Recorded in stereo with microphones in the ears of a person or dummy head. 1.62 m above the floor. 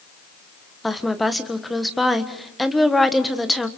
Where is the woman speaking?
5° left (ahead or behind), 1.4 m.